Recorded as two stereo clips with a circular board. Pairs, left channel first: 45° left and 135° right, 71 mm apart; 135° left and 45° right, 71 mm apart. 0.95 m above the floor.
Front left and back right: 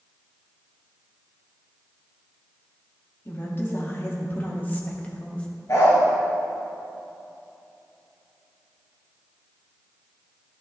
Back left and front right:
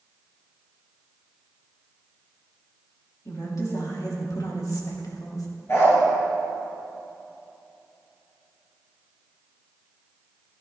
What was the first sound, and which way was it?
A woman speaking, 95° left.